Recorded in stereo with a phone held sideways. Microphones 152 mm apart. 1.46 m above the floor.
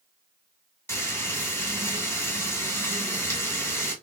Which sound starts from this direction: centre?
Frying, at 0.9 s.